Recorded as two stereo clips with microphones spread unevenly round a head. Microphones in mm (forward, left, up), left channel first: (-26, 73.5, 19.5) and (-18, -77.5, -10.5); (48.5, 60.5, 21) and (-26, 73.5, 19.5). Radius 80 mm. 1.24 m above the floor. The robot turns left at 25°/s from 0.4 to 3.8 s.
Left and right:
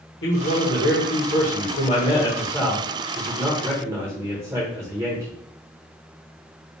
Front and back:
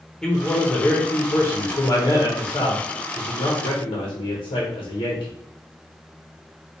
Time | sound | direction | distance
0.2 | a man speaking | 65° left | 1.4 m